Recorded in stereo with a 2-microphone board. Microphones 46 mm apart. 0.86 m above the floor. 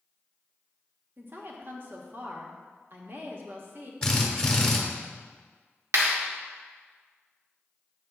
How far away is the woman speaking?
About 1.4 m.